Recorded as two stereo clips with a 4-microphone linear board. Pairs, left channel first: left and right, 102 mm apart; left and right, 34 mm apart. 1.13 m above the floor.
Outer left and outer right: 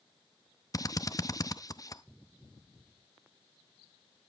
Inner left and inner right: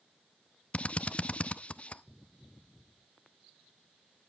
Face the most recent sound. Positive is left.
turn(degrees=35)  # may be behind; listen again after turning